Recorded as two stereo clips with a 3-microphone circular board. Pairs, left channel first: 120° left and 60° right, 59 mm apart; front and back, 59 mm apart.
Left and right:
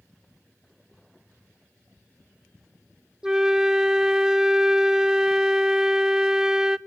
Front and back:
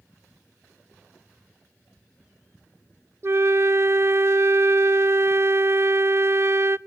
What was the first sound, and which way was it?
A flute, 140° right.